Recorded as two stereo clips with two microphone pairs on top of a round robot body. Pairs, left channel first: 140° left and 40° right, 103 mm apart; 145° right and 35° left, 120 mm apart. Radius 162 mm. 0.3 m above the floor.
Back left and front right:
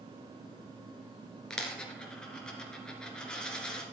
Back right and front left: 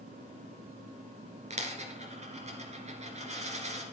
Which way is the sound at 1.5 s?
60° left.